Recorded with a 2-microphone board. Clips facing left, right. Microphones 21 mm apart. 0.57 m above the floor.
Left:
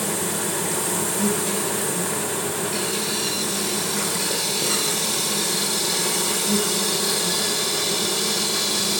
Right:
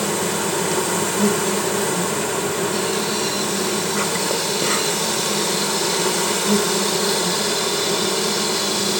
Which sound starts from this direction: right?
An insect, at 0.0 s.